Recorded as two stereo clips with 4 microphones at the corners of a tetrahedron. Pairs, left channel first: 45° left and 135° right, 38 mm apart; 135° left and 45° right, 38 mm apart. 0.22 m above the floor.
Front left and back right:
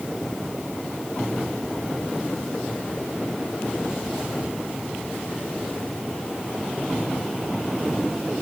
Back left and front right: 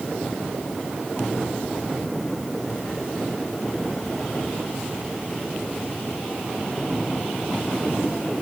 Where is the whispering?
I don't hear whispering.